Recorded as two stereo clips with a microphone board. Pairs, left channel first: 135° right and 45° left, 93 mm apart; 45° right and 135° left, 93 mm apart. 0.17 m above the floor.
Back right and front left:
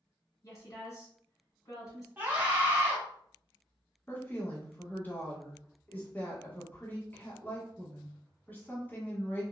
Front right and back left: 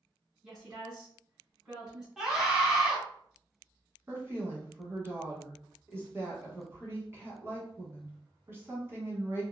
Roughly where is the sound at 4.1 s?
Behind.